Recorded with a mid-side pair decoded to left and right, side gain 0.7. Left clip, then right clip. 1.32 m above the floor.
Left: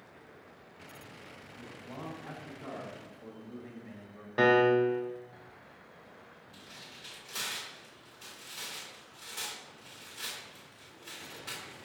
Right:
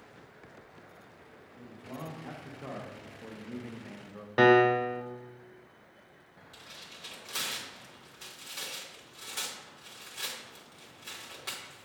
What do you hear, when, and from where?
1.5 s a man speaking: 20° right, 2.0 m; by 4.3 s 65° right, 0.9 m
4.4 s a piano: 25° right, 0.5 m
6.5 s tearing paper: 40° right, 2.5 m